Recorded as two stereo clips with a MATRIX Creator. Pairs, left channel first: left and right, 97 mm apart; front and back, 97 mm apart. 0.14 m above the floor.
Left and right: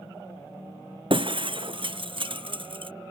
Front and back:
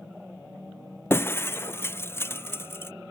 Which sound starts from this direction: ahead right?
Breaking glass, at 1.1 s.